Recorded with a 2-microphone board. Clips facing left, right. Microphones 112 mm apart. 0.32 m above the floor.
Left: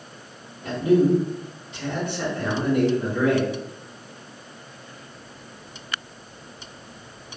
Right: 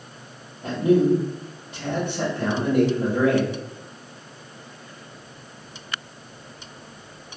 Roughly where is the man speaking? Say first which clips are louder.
Even; right.